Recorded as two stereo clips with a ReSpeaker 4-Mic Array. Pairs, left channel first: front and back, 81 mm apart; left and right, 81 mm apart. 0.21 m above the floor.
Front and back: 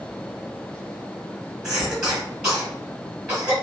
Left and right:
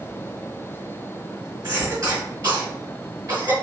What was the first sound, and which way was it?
A cough, 105° right.